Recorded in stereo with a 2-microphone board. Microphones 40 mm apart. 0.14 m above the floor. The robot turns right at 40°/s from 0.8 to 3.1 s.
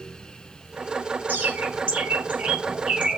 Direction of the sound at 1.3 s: 50° right (ahead or behind).